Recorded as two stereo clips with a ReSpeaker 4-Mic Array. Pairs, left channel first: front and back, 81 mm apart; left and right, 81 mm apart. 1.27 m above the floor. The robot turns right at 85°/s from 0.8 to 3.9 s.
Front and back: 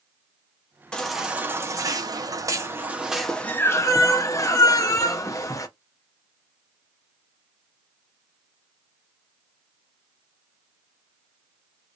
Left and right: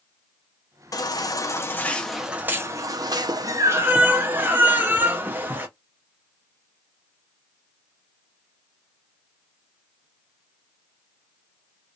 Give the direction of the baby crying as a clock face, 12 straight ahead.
10 o'clock.